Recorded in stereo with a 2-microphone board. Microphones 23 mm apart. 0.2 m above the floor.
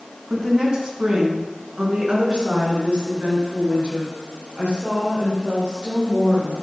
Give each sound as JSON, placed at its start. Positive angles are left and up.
{"t": 0.3, "sound": "a woman speaking", "side_deg": -35, "distance_m": 1.8}